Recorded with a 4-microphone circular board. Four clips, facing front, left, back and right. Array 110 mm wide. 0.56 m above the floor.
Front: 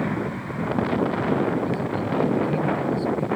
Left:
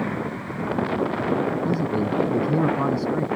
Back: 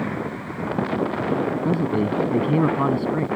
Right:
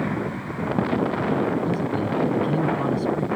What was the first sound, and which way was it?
A man speaking, 160° left.